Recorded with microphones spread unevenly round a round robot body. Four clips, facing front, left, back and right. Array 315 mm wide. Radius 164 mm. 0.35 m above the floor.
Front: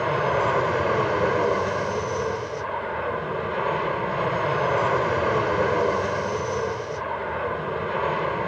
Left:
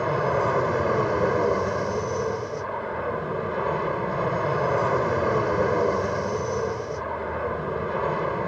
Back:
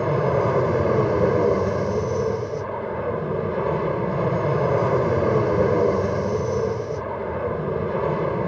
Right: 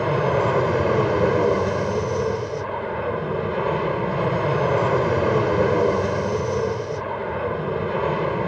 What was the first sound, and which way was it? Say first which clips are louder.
An aircraft: right 3 dB, back 2 dB; 140° right.